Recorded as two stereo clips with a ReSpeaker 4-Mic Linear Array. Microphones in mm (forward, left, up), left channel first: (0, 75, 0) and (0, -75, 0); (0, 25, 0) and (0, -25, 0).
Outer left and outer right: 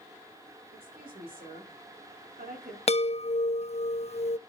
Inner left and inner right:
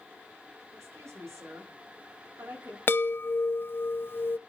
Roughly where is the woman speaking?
Right.